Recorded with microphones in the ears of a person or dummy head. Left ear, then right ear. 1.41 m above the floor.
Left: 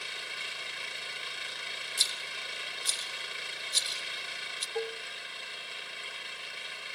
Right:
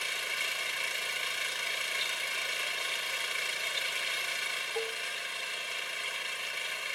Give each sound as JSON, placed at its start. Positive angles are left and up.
{"t": 0.0, "sound": "an engine running", "side_deg": -30}
{"t": 2.0, "sound": "a rattle", "side_deg": 70}
{"t": 4.8, "sound": "dishes clattering", "side_deg": 5}